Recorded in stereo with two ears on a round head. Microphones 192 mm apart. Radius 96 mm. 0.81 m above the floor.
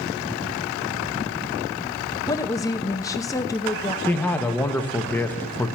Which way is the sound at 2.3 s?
15° left (ahead or behind).